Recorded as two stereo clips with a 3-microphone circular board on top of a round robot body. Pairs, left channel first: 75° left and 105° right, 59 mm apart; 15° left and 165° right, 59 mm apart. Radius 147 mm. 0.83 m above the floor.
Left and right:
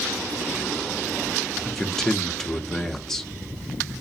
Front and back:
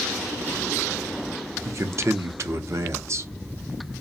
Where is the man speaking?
155° left, 0.6 m.